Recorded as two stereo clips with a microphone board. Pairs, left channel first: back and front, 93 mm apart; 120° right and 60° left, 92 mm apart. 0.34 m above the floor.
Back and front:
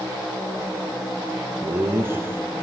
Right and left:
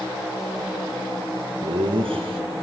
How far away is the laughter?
About 4 m.